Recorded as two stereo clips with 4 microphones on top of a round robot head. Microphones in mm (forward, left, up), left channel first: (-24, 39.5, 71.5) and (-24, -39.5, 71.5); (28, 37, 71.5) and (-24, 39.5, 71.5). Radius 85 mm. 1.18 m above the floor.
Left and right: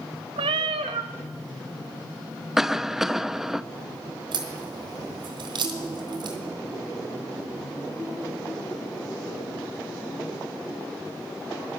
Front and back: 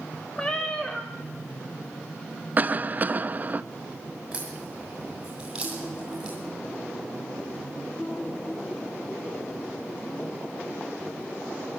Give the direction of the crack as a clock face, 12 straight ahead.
4 o'clock.